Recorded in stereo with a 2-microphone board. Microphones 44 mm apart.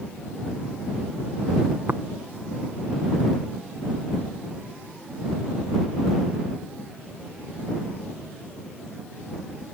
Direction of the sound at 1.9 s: 55° right (ahead or behind).